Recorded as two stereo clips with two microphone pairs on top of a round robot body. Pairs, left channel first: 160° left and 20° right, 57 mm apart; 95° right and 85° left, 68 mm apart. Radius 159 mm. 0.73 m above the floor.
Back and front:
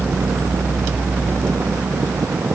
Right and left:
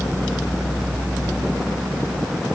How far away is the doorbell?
No doorbell in this recording.